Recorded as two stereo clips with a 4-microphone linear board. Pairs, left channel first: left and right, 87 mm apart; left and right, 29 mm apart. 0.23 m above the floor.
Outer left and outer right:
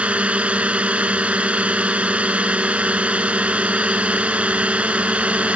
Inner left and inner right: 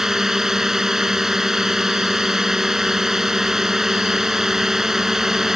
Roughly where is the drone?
Centre.